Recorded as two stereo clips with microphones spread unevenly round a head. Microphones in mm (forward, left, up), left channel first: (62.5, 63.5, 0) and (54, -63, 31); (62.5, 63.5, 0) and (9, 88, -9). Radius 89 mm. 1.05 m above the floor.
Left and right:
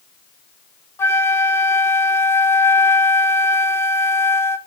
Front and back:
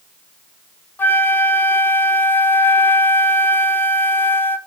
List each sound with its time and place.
1.0 s a flute: 10° left, 0.7 m